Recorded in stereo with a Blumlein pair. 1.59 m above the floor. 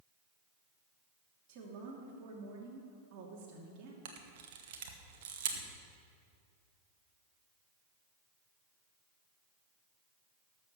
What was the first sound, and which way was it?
A woman speaking, 40° right.